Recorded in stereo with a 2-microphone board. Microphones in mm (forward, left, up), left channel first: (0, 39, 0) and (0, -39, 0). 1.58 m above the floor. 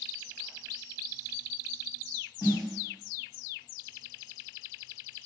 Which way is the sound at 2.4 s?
60° left (ahead or behind).